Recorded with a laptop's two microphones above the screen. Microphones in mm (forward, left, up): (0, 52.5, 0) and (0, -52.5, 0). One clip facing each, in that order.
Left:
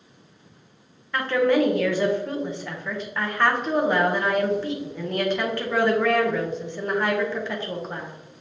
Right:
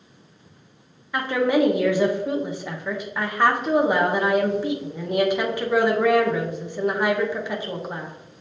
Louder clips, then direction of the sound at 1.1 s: Even; 10° right (ahead or behind).